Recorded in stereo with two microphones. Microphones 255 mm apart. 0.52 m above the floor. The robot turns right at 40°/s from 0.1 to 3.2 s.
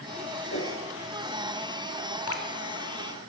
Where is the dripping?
70° left (ahead or behind), 1.0 m; by 2.5 s 60° left (ahead or behind), 1.0 m.